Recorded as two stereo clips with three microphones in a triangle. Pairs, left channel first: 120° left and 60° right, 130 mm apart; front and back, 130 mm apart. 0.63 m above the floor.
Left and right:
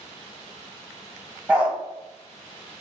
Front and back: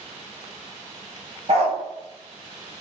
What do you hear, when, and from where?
1.5 s a dog barking: 140° right, 0.7 m